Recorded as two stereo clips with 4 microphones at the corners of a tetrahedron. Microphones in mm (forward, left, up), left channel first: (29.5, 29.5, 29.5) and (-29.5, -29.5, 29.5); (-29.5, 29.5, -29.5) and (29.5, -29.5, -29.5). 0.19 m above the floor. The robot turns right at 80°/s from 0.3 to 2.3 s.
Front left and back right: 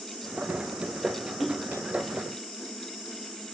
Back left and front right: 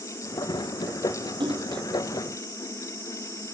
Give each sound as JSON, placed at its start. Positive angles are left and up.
{"t": 1.4, "sound": "a splash", "azimuth_deg": -45}